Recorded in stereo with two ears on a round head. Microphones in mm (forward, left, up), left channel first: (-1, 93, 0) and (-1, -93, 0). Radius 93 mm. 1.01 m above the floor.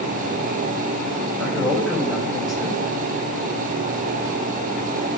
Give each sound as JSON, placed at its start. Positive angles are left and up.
{"t": 1.4, "sound": "a man speaking", "side_deg": 0, "distance_m": 5.5}